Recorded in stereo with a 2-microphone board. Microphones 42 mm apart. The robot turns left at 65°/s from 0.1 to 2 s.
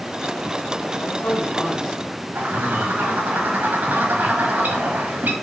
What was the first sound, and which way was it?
A man speaking, 80° left.